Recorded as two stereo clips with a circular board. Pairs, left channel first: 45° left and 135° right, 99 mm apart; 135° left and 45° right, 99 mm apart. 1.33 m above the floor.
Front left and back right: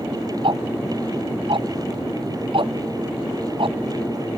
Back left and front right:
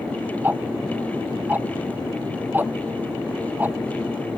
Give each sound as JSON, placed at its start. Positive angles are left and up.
{"t": 0.4, "sound": "ticking", "azimuth_deg": -115}